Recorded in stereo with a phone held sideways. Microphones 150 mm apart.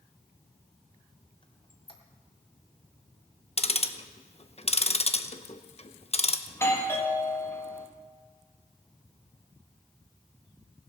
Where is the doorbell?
15° left (ahead or behind), 1.6 m.